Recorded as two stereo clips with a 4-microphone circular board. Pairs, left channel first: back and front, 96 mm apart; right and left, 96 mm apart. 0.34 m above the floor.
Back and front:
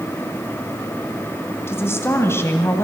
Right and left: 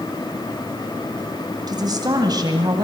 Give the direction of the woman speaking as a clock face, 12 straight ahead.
8 o'clock.